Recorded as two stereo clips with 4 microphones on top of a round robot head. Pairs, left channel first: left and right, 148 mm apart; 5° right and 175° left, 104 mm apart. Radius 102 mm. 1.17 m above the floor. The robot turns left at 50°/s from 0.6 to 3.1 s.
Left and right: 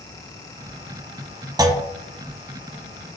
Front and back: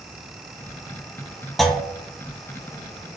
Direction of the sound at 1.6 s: 85° right.